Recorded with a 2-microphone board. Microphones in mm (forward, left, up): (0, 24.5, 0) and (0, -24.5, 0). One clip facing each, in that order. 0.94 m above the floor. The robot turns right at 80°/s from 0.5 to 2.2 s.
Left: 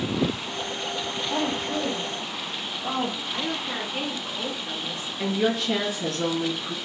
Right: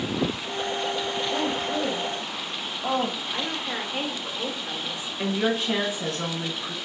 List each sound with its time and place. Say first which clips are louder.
1.3 s a woman speaking: left 2 dB; 30° left (ahead or behind), 1.0 m; by 3.2 s 35° right (ahead or behind), 1.0 m
3.3 s a woman speaking: even; 15° right (ahead or behind), 0.9 m
5.2 s a woman speaking: left 1 dB; 20° right (ahead or behind), 1.1 m